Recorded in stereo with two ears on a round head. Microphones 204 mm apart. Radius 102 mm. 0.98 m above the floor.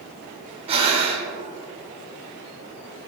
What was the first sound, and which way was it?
Breathing, 25° right (ahead or behind).